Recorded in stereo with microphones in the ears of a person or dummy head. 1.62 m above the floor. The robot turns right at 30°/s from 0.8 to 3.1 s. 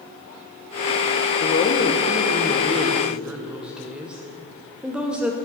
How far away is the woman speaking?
About 0.7 m.